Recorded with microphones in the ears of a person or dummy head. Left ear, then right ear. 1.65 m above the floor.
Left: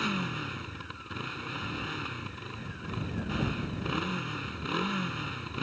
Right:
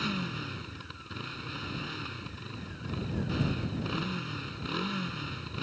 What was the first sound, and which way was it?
A motorcycle, 25° left (ahead or behind).